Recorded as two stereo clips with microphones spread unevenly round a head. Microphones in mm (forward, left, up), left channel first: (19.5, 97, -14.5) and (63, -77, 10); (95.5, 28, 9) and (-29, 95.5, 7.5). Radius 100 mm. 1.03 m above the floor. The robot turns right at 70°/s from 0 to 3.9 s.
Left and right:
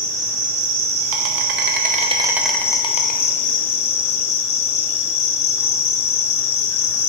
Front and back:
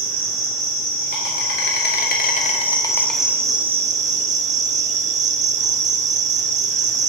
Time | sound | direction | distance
0.0 | an insect | 160° right | 0.7 m